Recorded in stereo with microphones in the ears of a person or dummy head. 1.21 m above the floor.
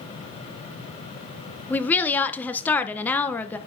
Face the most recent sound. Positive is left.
turn(degrees=5)  # may be behind; listen again after turning